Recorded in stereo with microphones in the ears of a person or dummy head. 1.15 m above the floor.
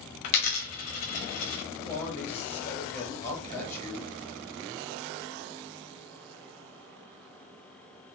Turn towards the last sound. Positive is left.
turn(degrees=15)  # may be behind; listen again after turning